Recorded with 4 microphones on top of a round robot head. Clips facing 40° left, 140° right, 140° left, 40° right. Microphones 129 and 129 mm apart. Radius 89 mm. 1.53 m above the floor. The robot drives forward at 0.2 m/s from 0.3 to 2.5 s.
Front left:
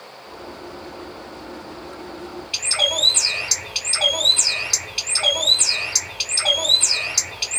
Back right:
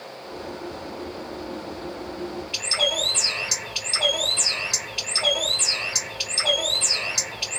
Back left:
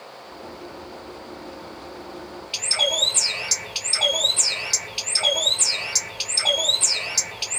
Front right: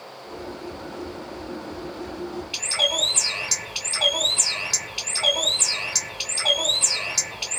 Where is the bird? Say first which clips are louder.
Front left 2 dB, back left 4 dB; 90° left, 1.3 m.